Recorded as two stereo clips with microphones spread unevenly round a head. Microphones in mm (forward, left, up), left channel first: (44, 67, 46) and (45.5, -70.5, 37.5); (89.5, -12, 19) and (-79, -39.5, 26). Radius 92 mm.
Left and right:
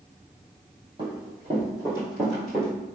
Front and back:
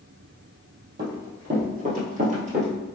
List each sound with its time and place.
1.0 s running footsteps: 155° right, 1.7 m; by 2.7 s 165° left, 1.3 m